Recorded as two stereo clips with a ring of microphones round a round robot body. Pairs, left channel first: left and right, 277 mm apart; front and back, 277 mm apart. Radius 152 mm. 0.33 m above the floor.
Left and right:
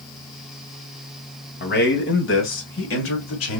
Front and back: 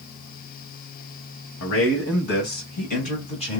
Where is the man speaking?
40° left, 2.5 m; by 3.6 s 70° left, 2.5 m.